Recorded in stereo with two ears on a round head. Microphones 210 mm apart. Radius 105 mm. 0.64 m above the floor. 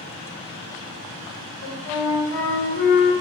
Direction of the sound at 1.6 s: 35° left (ahead or behind).